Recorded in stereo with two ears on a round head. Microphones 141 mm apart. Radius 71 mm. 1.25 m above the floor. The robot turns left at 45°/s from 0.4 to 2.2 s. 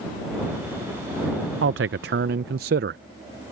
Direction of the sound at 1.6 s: 80° right.